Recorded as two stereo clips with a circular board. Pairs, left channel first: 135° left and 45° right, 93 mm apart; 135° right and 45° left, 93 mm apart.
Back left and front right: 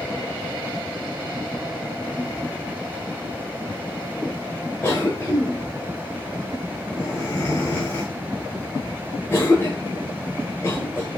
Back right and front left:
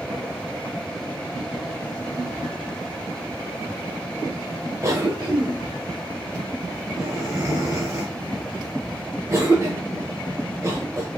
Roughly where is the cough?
Left.